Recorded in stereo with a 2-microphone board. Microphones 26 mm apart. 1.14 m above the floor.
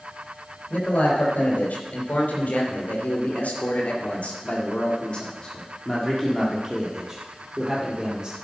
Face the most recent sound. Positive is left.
turn(degrees=-10)  # may be behind; listen again after turning